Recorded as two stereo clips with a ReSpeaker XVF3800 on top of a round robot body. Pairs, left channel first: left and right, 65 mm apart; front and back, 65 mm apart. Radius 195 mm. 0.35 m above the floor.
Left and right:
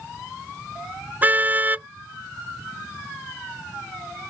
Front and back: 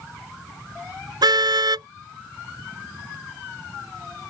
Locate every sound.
1.2 s a car horn: 155° right